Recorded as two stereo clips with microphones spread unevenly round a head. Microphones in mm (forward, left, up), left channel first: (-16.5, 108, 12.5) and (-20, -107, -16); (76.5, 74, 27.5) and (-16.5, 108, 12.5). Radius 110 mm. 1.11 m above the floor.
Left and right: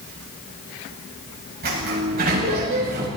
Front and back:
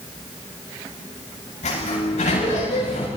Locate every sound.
1.6 s a sliding door: 40° right, 8.5 m